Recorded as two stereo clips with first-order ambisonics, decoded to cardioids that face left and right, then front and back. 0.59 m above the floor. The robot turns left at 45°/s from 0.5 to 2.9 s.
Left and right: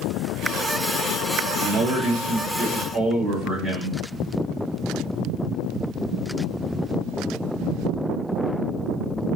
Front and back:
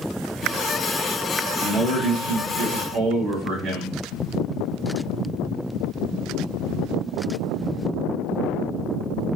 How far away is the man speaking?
About 1.4 m.